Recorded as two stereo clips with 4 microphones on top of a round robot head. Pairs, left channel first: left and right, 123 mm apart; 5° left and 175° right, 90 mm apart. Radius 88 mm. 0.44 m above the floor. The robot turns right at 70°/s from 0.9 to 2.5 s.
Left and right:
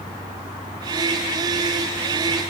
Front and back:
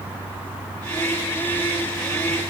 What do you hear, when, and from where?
Only background noise.